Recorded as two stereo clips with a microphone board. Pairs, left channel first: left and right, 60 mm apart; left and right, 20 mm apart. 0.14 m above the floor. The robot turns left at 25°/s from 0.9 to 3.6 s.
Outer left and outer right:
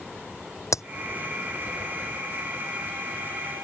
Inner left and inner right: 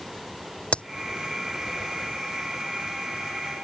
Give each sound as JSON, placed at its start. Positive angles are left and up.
{"t": 0.7, "sound": "a crack", "side_deg": 55}